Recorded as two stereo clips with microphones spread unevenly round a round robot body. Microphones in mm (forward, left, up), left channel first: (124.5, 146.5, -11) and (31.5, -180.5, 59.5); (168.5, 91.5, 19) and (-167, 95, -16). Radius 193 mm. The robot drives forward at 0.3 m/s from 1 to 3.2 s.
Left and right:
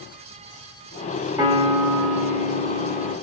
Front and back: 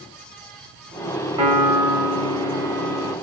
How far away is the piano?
About 1.4 m.